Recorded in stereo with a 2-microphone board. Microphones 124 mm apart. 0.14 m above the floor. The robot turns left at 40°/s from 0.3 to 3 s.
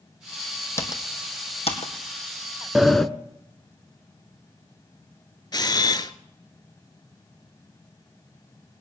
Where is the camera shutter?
35° left (ahead or behind), 0.7 m.